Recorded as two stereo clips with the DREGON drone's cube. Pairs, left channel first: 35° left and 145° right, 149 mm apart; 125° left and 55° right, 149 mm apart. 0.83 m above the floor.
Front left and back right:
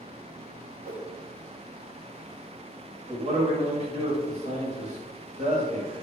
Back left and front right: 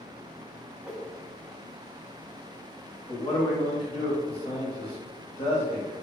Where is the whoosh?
140° right, 0.6 m.